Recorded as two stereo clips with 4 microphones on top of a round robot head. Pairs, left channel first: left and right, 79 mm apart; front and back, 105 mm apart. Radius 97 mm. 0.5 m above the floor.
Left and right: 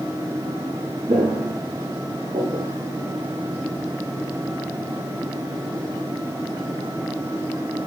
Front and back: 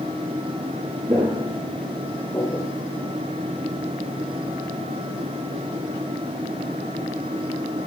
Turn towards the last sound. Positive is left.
turn(degrees=-55)